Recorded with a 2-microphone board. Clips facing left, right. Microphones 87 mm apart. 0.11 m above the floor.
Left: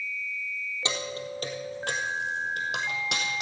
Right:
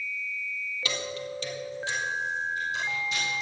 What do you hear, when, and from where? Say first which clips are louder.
0.8 s keys jangling: left 1 dB; 25° left (ahead or behind), 2 m; by 3.4 s 75° left (ahead or behind), 3.5 m